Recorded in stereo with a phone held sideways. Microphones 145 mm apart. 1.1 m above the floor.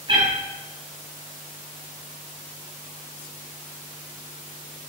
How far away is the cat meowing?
About 3 m.